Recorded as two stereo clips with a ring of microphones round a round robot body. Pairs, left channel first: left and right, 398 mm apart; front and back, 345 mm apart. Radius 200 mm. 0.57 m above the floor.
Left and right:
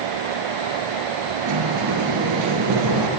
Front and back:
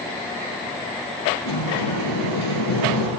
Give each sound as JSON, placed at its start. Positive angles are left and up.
{"t": 1.4, "sound": "a sliding door", "azimuth_deg": -45, "distance_m": 1.7}